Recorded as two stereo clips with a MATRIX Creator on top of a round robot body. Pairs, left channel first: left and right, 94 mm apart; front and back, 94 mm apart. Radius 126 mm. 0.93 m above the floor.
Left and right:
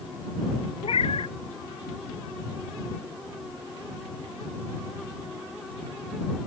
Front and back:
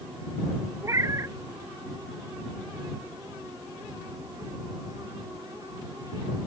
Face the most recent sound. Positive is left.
turn(degrees=120)